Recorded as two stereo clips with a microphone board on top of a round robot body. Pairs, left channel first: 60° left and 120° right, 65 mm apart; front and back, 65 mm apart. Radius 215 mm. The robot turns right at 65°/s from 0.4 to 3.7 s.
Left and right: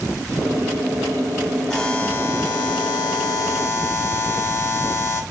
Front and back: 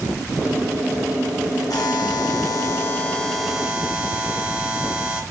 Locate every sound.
1.7 s a buzzer: 25° right, 1.1 m; by 5.2 s 105° left, 1.1 m